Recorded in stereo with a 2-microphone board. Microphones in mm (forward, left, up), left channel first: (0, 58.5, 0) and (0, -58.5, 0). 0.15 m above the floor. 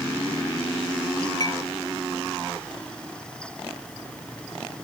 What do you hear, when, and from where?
1.4 s a clink: 35° left (ahead or behind)